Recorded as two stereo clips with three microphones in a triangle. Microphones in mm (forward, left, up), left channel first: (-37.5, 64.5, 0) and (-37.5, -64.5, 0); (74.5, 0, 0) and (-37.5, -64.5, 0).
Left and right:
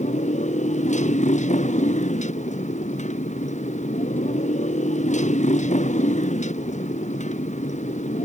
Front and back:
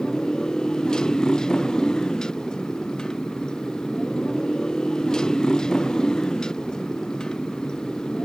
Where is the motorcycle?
115° left.